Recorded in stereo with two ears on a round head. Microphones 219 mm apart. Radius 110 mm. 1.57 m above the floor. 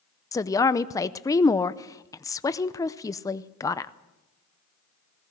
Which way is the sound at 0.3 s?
15° left (ahead or behind).